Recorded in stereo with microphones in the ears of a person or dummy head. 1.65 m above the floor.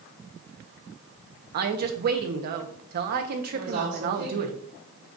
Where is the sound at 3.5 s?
75° right (ahead or behind), 3 m.